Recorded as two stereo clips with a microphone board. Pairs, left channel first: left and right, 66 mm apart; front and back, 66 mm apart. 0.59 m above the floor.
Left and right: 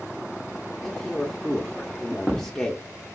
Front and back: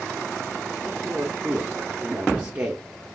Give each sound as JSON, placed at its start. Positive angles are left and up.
{"t": 0.8, "sound": "a man speaking", "azimuth_deg": 155, "distance_m": 0.7}